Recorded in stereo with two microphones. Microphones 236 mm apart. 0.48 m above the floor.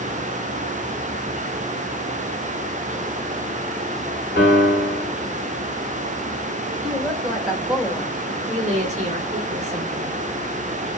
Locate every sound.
4.4 s a piano: 50° left (ahead or behind), 1.0 m
6.8 s a woman speaking: centre (ahead or behind), 1.4 m
8.5 s a woman speaking: 30° right (ahead or behind), 0.9 m